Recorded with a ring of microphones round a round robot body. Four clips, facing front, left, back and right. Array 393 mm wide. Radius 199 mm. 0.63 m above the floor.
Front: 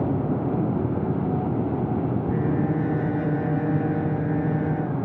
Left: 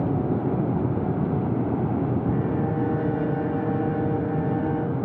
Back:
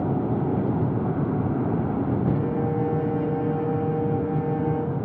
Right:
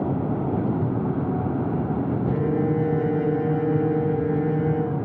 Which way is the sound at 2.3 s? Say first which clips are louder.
Right 2 dB, front 1 dB; 40° right.